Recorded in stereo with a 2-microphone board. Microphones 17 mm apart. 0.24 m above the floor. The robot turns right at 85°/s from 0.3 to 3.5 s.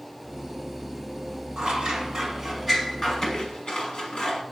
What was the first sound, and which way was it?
Scissors, 60° right (ahead or behind).